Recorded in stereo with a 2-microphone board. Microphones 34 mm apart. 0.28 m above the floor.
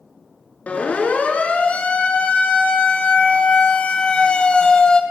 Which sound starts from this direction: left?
A siren, at 0.7 s.